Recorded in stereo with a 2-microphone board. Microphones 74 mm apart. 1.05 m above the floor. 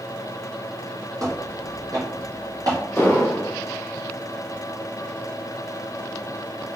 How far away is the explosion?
About 0.7 m.